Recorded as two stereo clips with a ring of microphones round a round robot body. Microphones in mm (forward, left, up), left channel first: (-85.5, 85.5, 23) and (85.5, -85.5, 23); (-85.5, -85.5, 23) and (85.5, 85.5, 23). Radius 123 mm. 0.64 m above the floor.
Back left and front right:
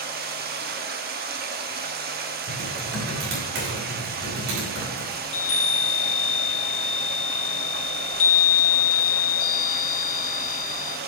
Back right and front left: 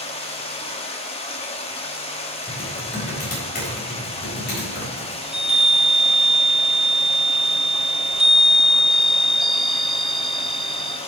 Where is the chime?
130° left, 1.2 m.